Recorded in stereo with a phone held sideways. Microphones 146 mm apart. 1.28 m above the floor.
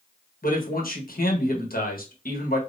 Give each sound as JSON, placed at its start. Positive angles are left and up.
{"t": 0.4, "sound": "a man speaking", "side_deg": 85, "distance_m": 1.4}